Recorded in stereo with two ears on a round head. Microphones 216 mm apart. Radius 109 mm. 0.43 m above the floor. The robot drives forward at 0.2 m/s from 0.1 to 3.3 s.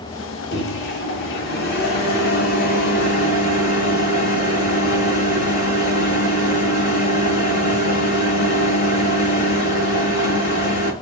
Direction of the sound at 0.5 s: 50° left (ahead or behind).